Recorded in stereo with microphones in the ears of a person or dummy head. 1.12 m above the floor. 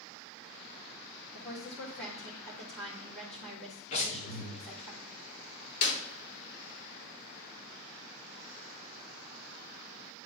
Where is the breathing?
40° left (ahead or behind), 2 m.